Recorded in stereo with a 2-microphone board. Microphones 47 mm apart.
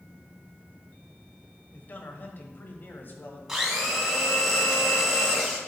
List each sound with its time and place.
1.7 s a man speaking: 40° left (ahead or behind), 1.2 m; by 3.4 s 45° left (ahead or behind), 1.6 m
3.5 s a blender: 10° right (ahead or behind), 2.5 m